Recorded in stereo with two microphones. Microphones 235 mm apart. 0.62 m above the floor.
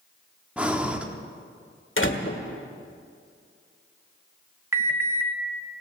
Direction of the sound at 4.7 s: 10° right (ahead or behind).